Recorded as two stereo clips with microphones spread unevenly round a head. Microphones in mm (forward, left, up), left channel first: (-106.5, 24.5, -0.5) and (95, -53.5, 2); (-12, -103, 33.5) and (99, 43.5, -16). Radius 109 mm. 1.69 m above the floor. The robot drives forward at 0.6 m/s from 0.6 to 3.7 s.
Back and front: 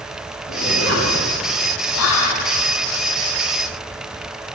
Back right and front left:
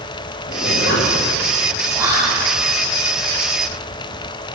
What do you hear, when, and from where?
0.5 s a zipper: 165° right, 2 m
1.9 s whispering: 130° left, 0.7 m; by 2.5 s 145° left, 0.9 m